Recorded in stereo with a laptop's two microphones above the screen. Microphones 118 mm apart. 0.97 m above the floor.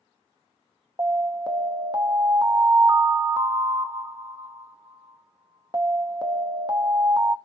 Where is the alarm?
35° right (ahead or behind), 0.6 m.